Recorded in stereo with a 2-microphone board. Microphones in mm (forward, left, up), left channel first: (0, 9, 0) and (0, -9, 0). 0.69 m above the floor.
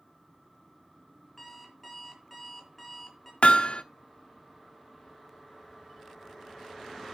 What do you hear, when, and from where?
1.4 s an alarm clock: 15° left (ahead or behind), 4 m
3.4 s hammering: 70° left (ahead or behind), 0.8 m